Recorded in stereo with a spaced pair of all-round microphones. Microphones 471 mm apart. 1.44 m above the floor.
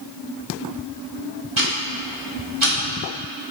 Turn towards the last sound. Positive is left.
turn(degrees=-80)